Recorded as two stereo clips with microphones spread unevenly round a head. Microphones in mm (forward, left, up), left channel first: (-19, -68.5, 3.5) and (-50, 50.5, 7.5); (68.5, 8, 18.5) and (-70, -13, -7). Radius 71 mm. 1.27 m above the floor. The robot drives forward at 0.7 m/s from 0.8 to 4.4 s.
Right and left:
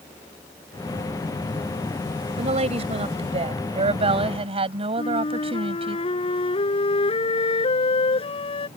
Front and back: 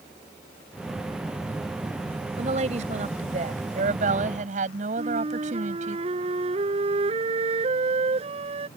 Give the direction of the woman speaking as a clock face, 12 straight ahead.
7 o'clock.